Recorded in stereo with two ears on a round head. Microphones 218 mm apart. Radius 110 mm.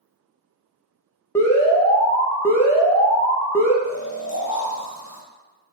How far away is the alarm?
About 0.6 m.